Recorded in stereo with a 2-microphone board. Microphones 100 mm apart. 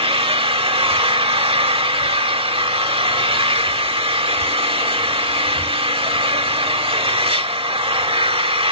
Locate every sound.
0.0 s an engine running: 70° right (ahead or behind), 0.8 m